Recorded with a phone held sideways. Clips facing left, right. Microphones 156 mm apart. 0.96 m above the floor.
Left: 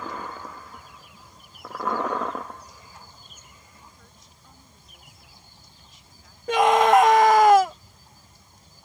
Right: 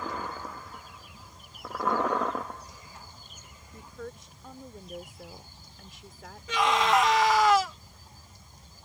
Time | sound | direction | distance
3.7 | a woman speaking | 70° right (ahead or behind) | ?
6.5 | a scream | 50° left (ahead or behind) | ?